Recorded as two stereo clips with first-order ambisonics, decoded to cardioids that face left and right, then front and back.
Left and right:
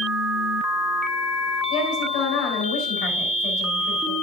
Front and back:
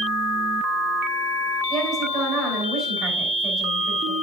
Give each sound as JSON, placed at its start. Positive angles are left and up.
{"t": 1.7, "sound": "a woman speaking", "azimuth_deg": 115, "distance_m": 6.0}